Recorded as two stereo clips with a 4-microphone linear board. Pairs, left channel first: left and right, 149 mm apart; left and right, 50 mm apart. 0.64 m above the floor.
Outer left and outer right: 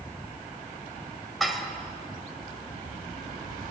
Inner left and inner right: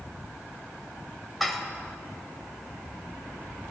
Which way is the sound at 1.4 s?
Centre (ahead or behind).